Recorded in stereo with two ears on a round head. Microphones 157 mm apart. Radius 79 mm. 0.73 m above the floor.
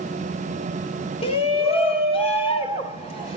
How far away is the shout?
About 1.6 m.